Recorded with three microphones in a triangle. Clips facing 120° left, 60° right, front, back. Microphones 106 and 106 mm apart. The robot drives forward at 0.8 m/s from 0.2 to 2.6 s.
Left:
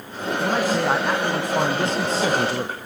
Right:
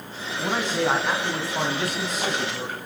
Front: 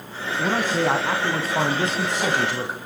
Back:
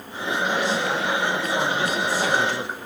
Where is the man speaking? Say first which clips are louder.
Left 3 dB, front 2 dB; 35° left, 2.5 m; by 2.8 s 80° left, 1.8 m.